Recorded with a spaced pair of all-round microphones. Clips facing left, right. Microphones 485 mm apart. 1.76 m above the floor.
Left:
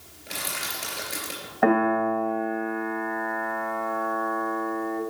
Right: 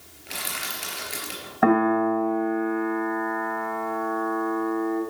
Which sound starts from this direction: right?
A piano, at 1.6 s.